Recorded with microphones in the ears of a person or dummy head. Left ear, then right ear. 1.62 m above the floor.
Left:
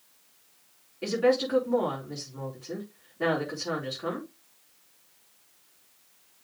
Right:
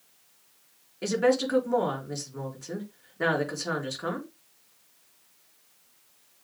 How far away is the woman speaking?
About 4 m.